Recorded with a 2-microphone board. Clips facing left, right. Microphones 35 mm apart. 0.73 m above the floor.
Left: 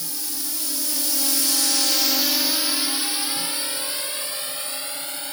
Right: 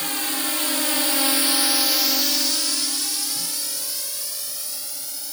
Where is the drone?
60° right (ahead or behind); by 5.3 s 40° left (ahead or behind).